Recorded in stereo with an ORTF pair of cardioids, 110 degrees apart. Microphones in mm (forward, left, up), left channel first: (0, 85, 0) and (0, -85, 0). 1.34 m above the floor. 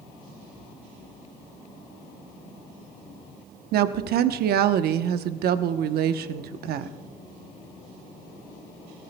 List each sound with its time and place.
3.7 s a woman speaking: 65° right, 0.8 m